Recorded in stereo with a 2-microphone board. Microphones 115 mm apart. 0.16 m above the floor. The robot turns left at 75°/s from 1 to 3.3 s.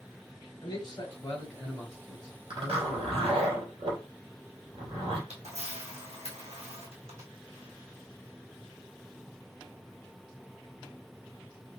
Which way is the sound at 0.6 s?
60° left.